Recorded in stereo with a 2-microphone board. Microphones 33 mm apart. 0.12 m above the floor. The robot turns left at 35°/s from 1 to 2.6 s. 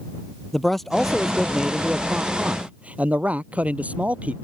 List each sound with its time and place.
0.5 s a man speaking: 5° left; by 4.3 s 50° right